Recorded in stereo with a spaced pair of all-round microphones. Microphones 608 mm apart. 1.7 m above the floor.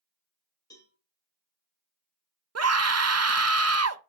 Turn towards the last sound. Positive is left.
turn(degrees=-30)  # may be behind; listen again after turning